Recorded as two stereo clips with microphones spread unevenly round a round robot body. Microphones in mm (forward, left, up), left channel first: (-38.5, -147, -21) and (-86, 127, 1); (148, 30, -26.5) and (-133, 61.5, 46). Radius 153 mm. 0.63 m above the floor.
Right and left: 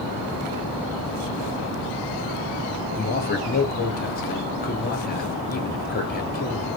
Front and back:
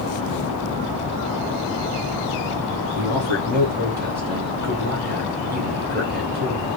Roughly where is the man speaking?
Behind right.